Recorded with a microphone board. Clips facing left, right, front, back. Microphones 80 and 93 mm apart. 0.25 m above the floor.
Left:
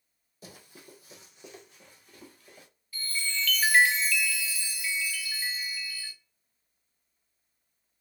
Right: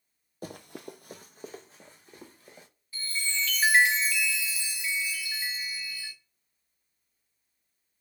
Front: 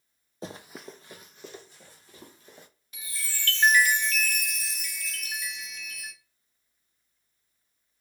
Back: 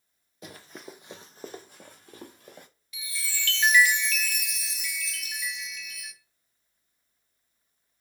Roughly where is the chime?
Ahead right.